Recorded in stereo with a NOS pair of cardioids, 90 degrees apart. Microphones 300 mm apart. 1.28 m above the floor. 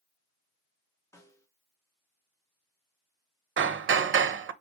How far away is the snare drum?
About 2.5 m.